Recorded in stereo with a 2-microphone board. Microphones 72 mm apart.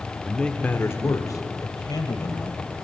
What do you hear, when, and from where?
0.2 s a man speaking: centre (ahead or behind), 1.3 m; by 2.6 s 70° left (ahead or behind), 3.5 m